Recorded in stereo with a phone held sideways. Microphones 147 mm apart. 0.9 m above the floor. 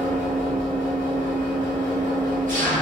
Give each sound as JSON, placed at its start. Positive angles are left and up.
{"t": 0.0, "sound": "an engine running", "side_deg": -70, "distance_m": 1.1}